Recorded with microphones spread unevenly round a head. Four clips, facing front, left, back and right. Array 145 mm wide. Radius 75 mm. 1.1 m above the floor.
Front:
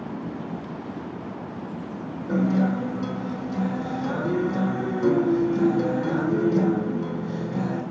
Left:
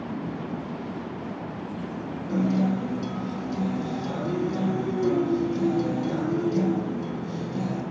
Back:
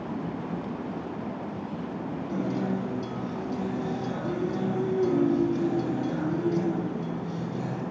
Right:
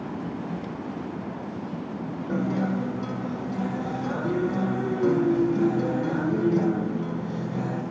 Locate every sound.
2.3 s a guitar: 20° right, 4.5 m